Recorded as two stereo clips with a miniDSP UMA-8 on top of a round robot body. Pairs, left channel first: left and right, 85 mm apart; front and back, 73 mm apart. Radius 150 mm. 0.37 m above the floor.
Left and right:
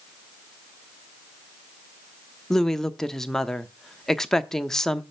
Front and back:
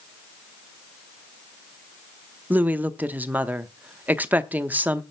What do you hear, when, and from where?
2.5 s a woman speaking: 165° left, 1.0 m